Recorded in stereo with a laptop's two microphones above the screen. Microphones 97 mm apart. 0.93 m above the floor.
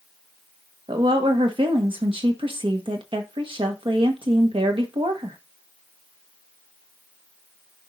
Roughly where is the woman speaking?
Right.